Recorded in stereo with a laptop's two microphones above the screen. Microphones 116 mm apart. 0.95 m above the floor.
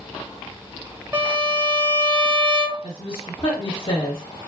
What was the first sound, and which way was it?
A violin, 20° right (ahead or behind).